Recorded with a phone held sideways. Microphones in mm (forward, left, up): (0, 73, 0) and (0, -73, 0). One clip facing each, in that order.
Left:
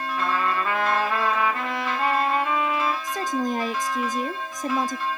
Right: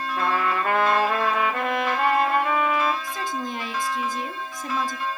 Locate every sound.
0.2 s a trumpet: 65° right (ahead or behind), 3 m
3.0 s a woman speaking: 45° left (ahead or behind), 1.2 m